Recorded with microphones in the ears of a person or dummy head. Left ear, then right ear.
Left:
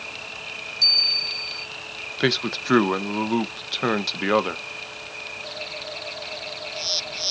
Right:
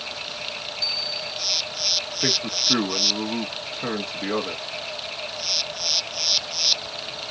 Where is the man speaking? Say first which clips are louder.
Left 1 dB; 55° left (ahead or behind), 0.6 m.